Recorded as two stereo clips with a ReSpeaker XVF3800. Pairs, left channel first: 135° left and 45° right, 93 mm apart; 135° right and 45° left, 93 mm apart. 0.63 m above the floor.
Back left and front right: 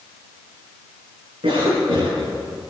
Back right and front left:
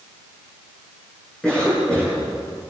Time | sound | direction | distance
1.4 | a cough | 55° right | 8 m